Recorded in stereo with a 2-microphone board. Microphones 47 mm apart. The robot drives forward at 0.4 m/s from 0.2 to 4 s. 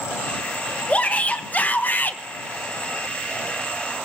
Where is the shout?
30° left (ahead or behind), 1.4 m; by 2.2 s 40° left (ahead or behind), 1.0 m.